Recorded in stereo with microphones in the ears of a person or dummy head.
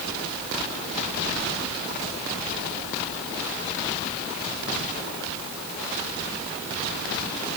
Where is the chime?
No chime in this recording.